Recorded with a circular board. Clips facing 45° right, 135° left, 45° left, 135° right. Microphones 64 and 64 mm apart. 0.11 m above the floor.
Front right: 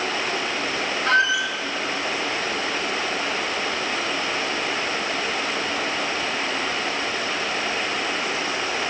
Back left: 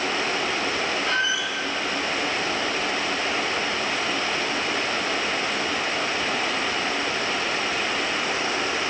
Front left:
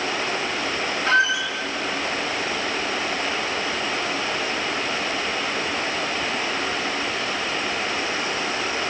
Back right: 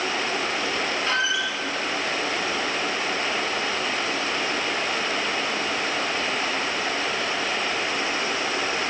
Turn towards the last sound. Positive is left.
turn(degrees=-20)